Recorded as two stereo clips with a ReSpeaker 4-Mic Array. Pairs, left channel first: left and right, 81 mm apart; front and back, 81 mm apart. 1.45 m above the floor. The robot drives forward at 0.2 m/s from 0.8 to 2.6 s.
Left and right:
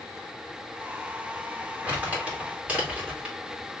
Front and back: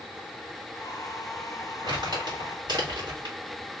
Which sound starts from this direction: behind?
Crumpling, at 1.8 s.